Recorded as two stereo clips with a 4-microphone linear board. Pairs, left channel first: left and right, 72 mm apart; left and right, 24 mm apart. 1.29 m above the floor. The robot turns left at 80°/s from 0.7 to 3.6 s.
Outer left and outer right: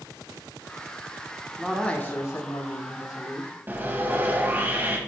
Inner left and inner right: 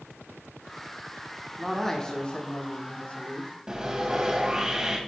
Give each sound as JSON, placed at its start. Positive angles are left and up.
{"t": 1.6, "sound": "a man speaking", "azimuth_deg": -175, "distance_m": 1.4}
{"t": 3.7, "sound": "sawing", "side_deg": -30, "distance_m": 1.3}